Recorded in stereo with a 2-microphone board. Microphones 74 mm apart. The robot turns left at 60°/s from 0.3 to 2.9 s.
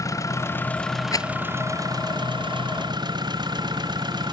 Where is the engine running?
45° left; by 4.3 s 115° right.